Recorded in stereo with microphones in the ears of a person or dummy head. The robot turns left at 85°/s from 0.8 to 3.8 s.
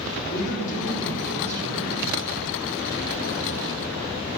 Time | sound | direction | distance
0.3 | a man speaking | 45° left | 3.5 m